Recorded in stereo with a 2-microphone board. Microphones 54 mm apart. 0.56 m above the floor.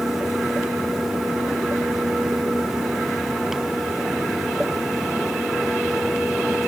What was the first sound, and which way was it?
Only background noise.